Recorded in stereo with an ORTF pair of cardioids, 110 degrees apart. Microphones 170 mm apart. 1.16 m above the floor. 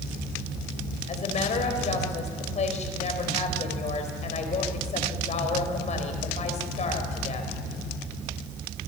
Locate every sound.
1.1 s a woman speaking: 40° left, 4.5 m